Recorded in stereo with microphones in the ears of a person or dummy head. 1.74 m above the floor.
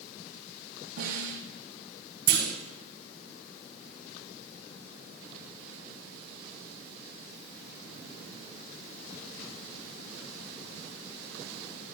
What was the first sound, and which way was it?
A snare drum, 65° right (ahead or behind).